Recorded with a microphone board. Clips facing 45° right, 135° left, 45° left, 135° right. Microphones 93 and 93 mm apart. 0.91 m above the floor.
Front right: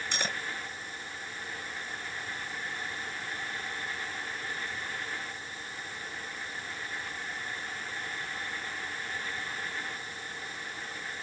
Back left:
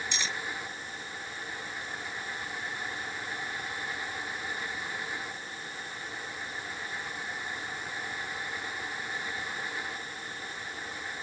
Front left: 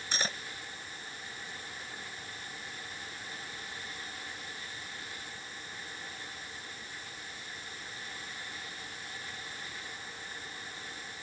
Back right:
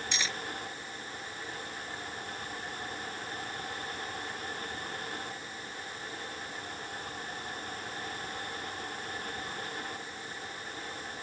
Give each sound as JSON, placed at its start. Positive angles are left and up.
{"t": 0.1, "sound": "cutlery clinking", "azimuth_deg": -5}